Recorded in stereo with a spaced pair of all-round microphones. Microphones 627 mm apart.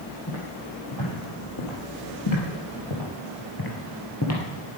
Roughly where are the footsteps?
Left.